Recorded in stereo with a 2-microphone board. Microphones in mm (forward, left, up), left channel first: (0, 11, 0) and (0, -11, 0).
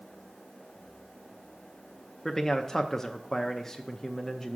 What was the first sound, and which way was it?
A man speaking, 20° left (ahead or behind).